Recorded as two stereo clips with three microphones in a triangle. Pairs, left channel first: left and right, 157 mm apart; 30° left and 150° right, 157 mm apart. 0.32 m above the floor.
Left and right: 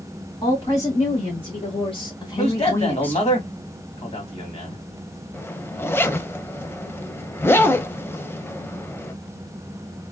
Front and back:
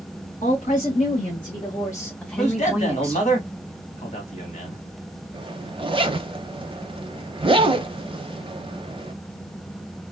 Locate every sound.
0.4 s a woman speaking: 50° left, 2.0 m; by 3.3 s 170° left, 1.3 m
2.4 s a man speaking: 55° left, 2 m
5.3 s a zipper: 165° left, 0.5 m